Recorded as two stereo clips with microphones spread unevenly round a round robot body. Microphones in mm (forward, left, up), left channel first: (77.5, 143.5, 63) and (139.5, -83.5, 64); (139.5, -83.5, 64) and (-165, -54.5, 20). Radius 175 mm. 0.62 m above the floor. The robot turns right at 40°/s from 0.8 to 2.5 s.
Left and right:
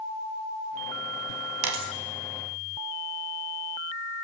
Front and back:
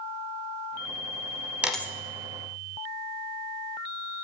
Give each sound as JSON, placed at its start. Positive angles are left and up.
{"t": 1.6, "sound": "a dropped coin", "azimuth_deg": -100, "distance_m": 0.9}